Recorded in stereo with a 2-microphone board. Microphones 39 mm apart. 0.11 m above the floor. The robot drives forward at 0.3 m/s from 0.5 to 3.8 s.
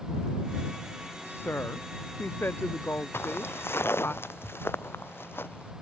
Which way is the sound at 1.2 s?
70° left (ahead or behind).